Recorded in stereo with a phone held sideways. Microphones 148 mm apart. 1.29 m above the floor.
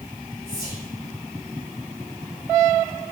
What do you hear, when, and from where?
0.5 s whispering: 35° left (ahead or behind), 0.6 m